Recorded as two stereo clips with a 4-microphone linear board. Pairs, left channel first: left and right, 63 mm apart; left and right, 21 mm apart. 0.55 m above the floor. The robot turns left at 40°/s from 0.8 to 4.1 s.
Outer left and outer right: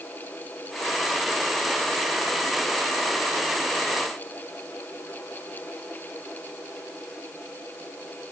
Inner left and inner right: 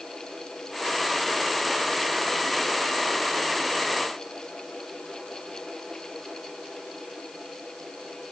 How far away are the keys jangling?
I don't hear keys jangling.